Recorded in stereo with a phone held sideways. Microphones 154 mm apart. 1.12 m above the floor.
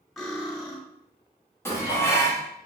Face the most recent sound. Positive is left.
turn(degrees=15)  # may be behind; listen again after turning